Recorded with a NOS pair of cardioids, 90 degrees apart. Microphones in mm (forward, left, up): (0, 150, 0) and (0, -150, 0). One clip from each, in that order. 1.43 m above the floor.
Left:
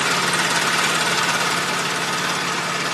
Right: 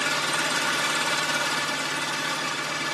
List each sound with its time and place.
0.0 s an engine running: 55° left, 0.9 m